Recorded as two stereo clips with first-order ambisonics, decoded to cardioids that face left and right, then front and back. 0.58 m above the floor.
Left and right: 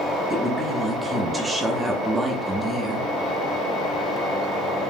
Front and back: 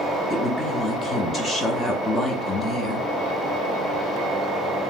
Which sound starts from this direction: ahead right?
A woman speaking, at 0.3 s.